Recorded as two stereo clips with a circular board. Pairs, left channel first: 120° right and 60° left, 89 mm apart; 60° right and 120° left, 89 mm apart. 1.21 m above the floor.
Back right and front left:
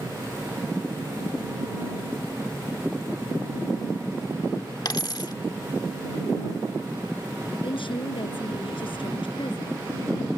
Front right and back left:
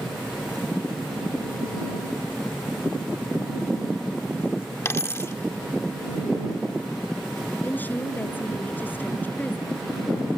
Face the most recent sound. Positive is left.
turn(degrees=-130)